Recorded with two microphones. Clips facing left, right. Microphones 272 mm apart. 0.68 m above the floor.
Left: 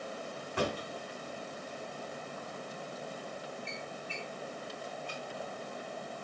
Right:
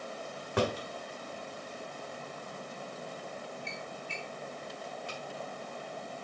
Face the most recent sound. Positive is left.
turn(degrees=-80)